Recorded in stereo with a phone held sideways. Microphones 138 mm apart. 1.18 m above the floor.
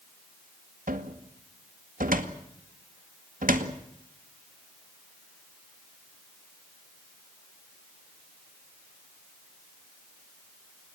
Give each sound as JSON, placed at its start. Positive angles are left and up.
{"t": 0.9, "sound": "a cupboard door", "side_deg": -80, "distance_m": 2.0}